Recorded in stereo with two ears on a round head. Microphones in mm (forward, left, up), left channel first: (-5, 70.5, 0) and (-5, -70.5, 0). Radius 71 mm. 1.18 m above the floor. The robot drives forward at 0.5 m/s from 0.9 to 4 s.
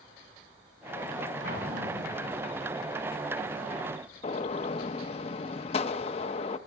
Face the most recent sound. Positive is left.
turn(degrees=40)  # may be behind; listen again after turning